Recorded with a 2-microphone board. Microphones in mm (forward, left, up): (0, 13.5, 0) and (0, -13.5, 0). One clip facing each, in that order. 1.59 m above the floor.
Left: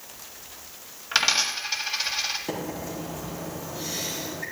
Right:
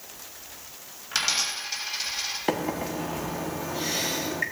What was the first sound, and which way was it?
A dropped coin, 30° left (ahead or behind).